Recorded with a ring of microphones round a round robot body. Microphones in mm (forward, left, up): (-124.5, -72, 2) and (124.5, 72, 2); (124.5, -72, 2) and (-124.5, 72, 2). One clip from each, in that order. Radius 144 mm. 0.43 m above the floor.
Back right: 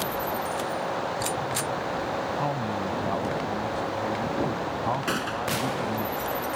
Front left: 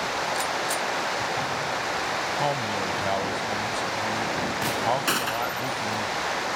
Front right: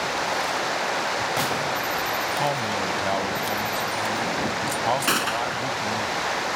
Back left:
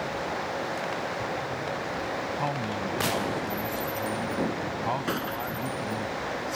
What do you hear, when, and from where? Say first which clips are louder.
0.0 s running water: front left 2 dB, front right 6 dB; 10° left
2.4 s a man speaking: front left 3 dB, front right 6 dB; 20° left
5.1 s a gunshot: front left 2 dB, front right 8 dB; 20° right